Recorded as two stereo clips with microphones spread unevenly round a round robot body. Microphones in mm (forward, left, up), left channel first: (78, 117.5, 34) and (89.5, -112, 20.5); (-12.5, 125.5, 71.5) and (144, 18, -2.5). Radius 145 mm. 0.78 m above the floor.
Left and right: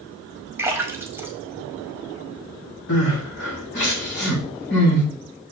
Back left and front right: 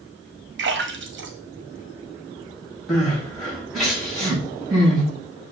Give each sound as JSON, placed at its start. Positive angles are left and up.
{"t": 0.6, "sound": "a splash", "azimuth_deg": -5, "distance_m": 1.7}
{"t": 2.9, "sound": "crying", "azimuth_deg": 55, "distance_m": 5.0}